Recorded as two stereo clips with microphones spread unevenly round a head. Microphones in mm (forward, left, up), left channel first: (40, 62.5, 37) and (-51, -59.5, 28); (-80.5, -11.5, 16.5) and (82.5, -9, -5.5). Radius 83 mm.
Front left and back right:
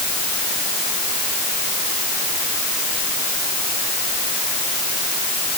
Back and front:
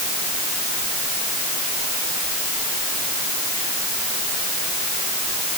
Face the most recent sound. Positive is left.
No sound to turn to.